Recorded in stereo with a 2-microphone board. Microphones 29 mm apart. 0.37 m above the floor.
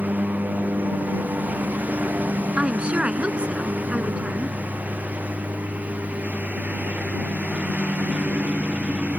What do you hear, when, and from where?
0.0 s a lawn mower: 70° right (ahead or behind); by 9.2 s 55° right (ahead or behind)
2.6 s a woman speaking: 40° right (ahead or behind)